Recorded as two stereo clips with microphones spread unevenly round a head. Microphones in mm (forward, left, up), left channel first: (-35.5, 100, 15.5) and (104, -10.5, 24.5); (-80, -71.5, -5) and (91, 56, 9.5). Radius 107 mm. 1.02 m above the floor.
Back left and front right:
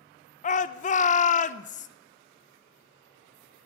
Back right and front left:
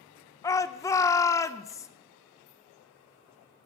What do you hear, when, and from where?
0.4 s a shout: 150° left, 0.7 m